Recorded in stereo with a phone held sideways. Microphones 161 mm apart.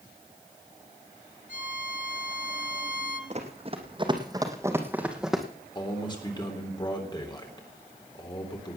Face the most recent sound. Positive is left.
turn(degrees=25)  # may be behind; listen again after turning